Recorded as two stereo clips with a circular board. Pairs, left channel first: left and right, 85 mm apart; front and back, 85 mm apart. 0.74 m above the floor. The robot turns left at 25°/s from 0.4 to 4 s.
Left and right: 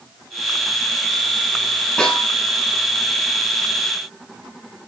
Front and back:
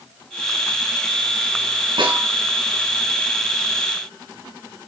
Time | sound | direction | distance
2.0 | a snare drum | 175° left | 6 m